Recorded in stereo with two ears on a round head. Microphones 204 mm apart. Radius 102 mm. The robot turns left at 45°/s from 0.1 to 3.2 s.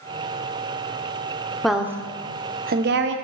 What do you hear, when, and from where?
1.6 s a woman speaking: centre (ahead or behind), 0.6 m; by 3.1 s 55° right (ahead or behind), 0.6 m